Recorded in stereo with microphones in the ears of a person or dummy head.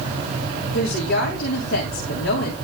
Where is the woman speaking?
75° left (ahead or behind), 3.5 m.